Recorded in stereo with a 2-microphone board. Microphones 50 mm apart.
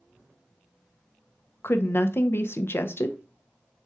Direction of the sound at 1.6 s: 50° left (ahead or behind).